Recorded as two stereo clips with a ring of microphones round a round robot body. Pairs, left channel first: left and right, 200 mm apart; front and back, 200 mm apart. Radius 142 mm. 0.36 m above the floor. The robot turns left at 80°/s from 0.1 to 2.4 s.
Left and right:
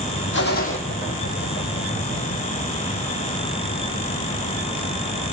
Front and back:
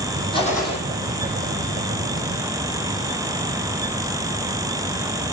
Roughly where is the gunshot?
Ahead left.